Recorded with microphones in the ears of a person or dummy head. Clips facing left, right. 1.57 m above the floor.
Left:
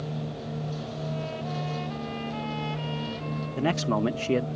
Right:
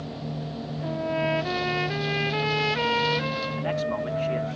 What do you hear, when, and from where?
0.8 s a trumpet: 85° right
3.6 s a man speaking: 55° left (ahead or behind)